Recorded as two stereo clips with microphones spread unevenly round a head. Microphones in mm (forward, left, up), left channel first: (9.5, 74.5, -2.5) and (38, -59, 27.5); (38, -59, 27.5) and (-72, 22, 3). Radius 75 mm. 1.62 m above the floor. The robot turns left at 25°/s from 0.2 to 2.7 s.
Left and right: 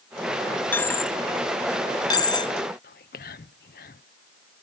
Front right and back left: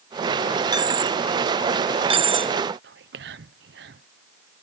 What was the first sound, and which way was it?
A dropped coin, 170° right.